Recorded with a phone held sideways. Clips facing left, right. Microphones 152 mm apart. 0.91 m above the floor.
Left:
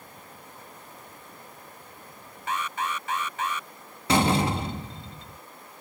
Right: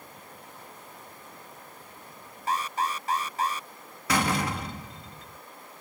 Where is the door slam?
25° left (ahead or behind).